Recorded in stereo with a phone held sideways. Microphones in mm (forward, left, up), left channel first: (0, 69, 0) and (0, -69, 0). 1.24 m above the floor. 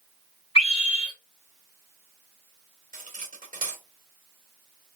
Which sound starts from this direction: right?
Cutlery clinking, at 2.9 s.